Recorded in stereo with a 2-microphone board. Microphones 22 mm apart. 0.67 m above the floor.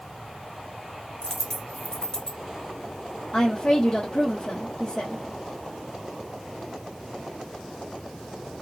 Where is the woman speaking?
55° left (ahead or behind), 1.0 m.